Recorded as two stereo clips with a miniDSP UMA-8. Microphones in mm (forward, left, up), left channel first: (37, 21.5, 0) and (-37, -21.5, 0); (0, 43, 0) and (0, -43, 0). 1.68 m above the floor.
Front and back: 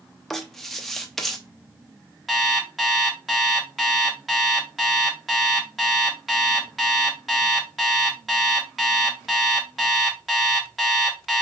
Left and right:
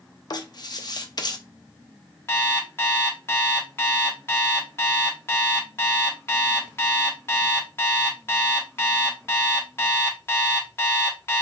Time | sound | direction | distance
0.3 | writing | 115° left | 0.5 m
2.3 | an alarm clock | 115° left | 0.9 m